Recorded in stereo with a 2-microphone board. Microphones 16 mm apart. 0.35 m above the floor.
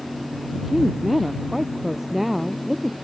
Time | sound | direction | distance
0.5 | a woman speaking | 10° right (ahead or behind) | ?